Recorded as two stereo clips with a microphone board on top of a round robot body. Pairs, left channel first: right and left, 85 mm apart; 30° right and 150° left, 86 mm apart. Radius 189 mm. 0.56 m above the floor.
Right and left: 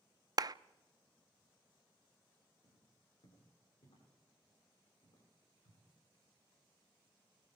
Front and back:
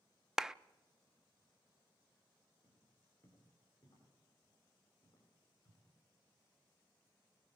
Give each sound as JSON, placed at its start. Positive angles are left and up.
{"t": 0.4, "sound": "a clap", "azimuth_deg": 70, "distance_m": 0.6}
{"t": 2.6, "sound": "footsteps", "azimuth_deg": -90, "distance_m": 9.0}